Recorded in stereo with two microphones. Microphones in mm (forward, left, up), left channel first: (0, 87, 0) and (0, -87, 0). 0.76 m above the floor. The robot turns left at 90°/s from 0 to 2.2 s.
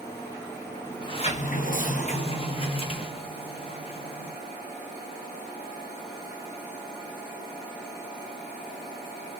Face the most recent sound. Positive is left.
turn(degrees=45)